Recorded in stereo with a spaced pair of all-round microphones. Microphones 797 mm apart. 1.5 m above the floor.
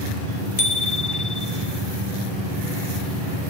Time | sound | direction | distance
0.6 | a bicycle bell | 60° left (ahead or behind) | 3 m